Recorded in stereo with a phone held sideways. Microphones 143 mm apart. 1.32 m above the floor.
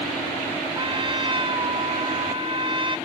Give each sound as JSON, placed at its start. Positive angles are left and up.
{"t": 0.8, "sound": "a trumpet", "side_deg": -35}